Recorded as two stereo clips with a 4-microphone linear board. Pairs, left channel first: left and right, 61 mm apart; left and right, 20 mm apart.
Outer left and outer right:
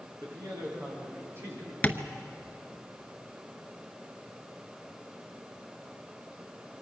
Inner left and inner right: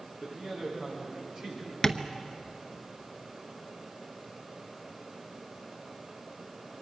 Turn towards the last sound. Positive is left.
turn(degrees=25)  # may be behind; listen again after turning